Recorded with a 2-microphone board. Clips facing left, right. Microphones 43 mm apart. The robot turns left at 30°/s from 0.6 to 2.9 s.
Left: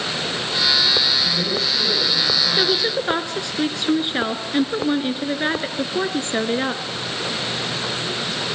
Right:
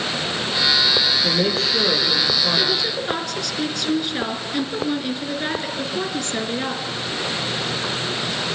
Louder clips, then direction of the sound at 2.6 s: Left 2 dB; 30° left (ahead or behind).